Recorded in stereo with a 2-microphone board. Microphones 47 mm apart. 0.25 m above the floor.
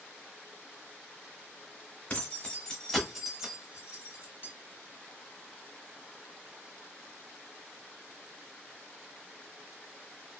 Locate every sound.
2.1 s keys jangling: 35° left (ahead or behind), 0.9 m; by 4.5 s 40° right (ahead or behind), 1.1 m